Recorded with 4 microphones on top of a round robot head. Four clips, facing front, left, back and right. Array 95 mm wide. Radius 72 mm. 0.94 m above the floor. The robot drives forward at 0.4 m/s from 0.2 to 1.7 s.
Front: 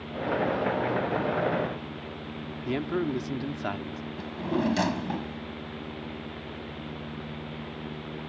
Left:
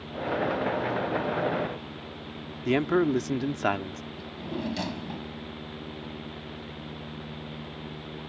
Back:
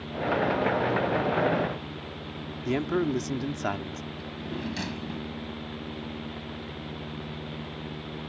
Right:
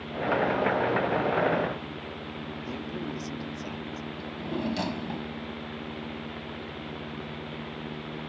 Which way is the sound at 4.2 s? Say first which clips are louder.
Right 1 dB, front 9 dB; 10° right.